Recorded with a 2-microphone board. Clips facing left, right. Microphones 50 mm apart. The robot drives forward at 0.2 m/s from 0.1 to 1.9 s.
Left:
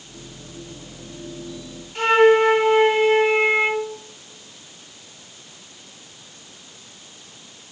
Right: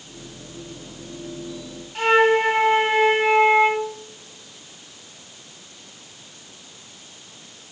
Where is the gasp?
No gasp in this recording.